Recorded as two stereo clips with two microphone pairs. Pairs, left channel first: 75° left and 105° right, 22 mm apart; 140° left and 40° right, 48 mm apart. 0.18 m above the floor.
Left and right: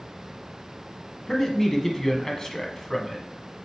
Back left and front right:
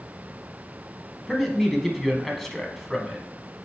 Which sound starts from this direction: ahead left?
A man speaking, at 1.3 s.